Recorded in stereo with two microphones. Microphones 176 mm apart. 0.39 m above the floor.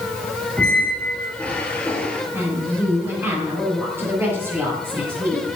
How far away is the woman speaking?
About 5 m.